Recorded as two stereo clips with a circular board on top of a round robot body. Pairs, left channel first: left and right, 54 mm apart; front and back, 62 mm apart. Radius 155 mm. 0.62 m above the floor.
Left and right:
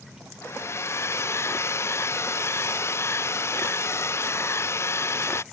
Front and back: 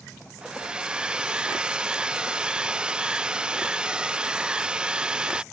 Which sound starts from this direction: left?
A hair dryer, at 0.4 s.